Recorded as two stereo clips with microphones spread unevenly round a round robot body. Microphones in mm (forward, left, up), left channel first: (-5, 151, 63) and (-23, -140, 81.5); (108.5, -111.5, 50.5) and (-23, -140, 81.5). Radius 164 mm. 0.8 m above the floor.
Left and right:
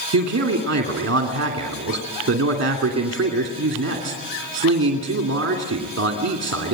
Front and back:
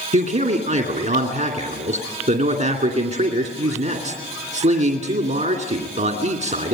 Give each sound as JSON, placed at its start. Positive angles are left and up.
{"t": 0.1, "sound": "a man speaking", "azimuth_deg": -145, "distance_m": 2.5}